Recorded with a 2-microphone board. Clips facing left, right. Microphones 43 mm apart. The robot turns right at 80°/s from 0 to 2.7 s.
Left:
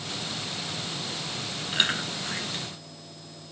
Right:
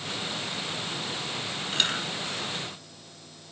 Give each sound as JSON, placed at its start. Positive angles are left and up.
{"t": 1.7, "sound": "chewing", "side_deg": 10, "distance_m": 4.0}